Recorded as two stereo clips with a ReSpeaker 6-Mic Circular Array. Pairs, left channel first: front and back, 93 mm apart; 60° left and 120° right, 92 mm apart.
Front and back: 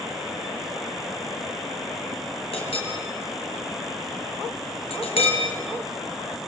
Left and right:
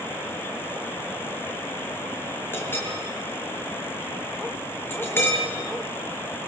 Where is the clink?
5° right, 5.5 m.